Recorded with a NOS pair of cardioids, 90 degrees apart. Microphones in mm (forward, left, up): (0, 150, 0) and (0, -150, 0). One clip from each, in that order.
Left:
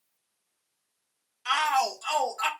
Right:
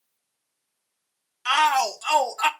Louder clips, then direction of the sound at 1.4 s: Right 5 dB; 25° right.